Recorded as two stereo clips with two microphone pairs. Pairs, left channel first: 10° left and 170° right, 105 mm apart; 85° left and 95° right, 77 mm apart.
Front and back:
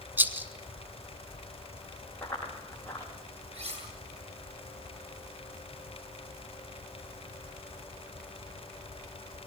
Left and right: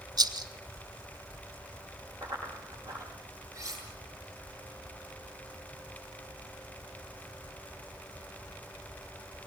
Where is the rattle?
100° right, 1.2 m.